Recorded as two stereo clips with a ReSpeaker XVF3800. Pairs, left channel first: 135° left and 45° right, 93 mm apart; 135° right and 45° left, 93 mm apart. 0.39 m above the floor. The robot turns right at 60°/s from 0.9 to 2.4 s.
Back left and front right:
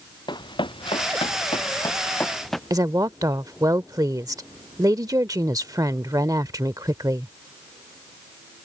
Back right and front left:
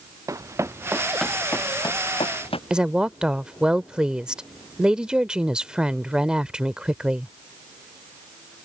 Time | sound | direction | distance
0.3 | running footsteps | 100° left | ?
2.7 | a woman speaking | 30° right | ?